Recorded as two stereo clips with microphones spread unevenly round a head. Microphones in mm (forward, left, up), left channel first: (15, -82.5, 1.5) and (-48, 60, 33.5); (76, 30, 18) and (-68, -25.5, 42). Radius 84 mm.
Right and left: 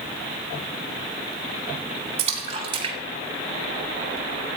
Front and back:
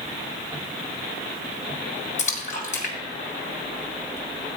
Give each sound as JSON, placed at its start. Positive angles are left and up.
{"t": 2.2, "sound": "a splash", "azimuth_deg": 65, "distance_m": 2.0}